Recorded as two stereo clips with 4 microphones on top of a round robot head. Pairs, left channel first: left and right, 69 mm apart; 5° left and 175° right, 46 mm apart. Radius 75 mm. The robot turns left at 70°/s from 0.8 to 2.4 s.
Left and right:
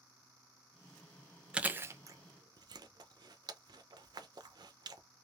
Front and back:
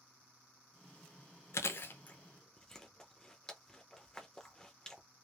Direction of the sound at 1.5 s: 15° right.